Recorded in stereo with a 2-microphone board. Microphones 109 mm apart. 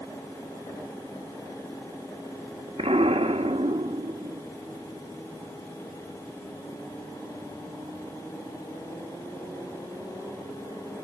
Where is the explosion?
65° right (ahead or behind), 1.0 m.